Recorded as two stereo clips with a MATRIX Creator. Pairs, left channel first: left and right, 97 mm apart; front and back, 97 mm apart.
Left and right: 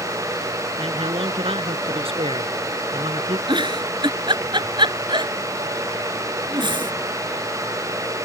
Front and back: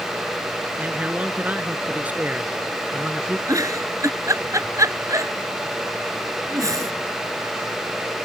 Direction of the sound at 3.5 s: 125° right.